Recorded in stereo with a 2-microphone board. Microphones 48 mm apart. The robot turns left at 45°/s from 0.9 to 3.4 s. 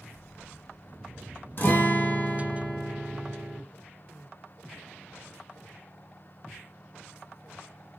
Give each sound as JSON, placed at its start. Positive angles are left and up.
{"t": 1.6, "sound": "a guitar", "azimuth_deg": 80, "distance_m": 0.6}